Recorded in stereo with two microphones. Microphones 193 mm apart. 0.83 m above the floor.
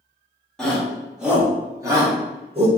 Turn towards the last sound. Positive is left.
turn(degrees=-35)  # may be behind; listen again after turning